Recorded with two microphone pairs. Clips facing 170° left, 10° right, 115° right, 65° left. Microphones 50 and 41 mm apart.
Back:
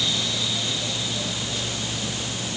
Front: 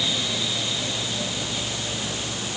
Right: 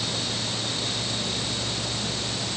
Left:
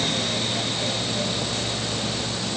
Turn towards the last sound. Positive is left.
No sound to turn to.